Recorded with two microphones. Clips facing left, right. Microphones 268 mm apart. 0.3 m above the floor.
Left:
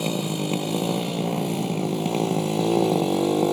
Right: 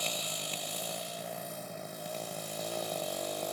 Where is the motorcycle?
65° left (ahead or behind); by 3.5 s 85° left.